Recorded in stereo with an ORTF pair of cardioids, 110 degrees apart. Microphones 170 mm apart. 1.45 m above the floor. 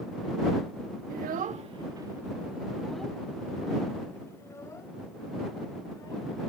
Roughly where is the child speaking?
Ahead right.